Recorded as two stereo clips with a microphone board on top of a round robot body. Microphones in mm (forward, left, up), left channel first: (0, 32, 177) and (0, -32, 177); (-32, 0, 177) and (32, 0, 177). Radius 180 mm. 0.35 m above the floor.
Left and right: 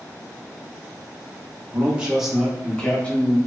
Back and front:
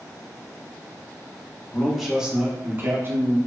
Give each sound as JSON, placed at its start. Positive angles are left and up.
{"t": 1.7, "sound": "a man speaking", "azimuth_deg": -110, "distance_m": 0.8}